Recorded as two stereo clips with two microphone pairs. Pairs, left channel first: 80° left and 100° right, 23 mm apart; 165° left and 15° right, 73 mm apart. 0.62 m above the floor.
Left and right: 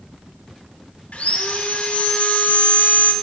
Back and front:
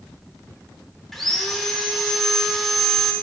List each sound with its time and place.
1.1 s sawing: 80° left, 1.1 m